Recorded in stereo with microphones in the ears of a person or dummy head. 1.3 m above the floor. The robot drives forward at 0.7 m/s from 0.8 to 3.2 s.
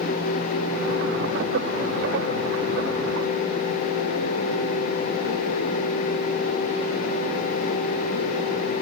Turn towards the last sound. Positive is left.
No sound to turn to.